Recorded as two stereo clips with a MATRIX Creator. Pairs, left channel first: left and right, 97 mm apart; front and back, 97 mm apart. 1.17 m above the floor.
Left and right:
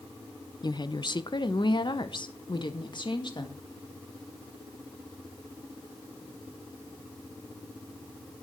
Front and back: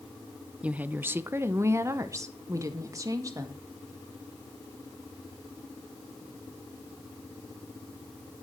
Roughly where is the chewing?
No chewing in this recording.